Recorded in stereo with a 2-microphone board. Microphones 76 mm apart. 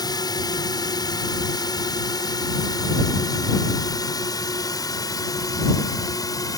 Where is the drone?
65° left (ahead or behind); by 6.6 s 55° left (ahead or behind).